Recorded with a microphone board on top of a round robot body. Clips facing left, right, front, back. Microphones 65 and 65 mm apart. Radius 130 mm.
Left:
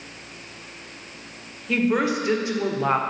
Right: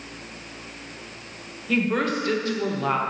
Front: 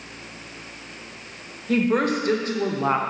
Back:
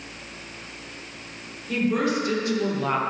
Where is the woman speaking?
10° left, 1.8 m; by 3.0 s 45° left, 1.3 m.